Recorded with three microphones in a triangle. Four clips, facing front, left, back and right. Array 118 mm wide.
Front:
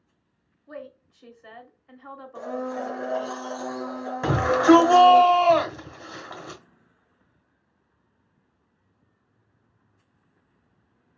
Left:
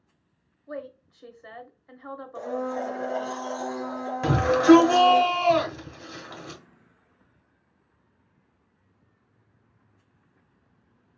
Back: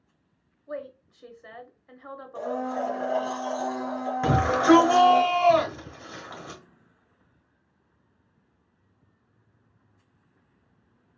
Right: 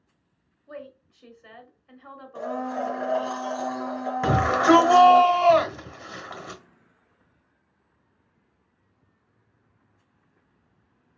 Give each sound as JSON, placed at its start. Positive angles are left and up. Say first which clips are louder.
{"t": 0.7, "sound": "a woman speaking", "louder": "left 4 dB, back 4 dB", "azimuth_deg": 120, "distance_m": 0.9}
{"t": 2.4, "sound": "a blender", "louder": "right 1 dB, back 2 dB", "azimuth_deg": -85, "distance_m": 2.5}
{"t": 4.2, "sound": "a shout", "louder": "left 2 dB, front 2 dB", "azimuth_deg": -85, "distance_m": 1.2}